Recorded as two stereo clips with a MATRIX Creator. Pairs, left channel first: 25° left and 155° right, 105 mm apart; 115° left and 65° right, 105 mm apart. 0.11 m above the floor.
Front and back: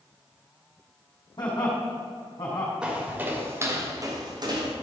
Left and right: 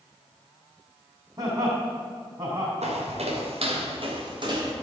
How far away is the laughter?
About 4 m.